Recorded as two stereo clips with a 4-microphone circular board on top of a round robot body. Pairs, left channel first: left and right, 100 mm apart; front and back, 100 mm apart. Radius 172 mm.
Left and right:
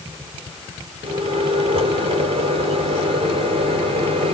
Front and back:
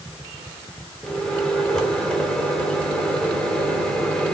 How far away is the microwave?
About 2.5 m.